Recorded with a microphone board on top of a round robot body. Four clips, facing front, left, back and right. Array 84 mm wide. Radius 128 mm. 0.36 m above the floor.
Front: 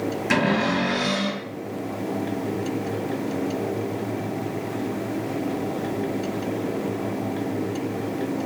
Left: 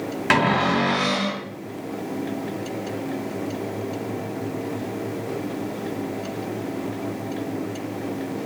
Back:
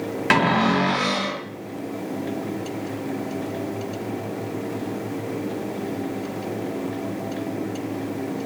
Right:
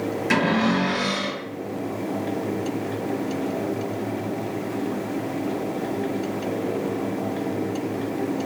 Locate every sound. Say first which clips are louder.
0.3 s a cupboard door: left 2 dB, back 4 dB; 140° left, 1.2 m